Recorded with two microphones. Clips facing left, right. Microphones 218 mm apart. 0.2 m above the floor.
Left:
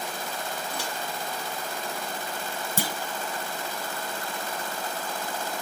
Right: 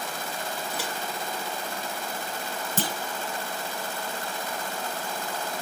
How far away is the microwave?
About 1.8 m.